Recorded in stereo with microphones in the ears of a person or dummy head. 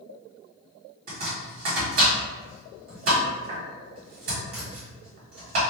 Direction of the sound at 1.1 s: 55° right (ahead or behind).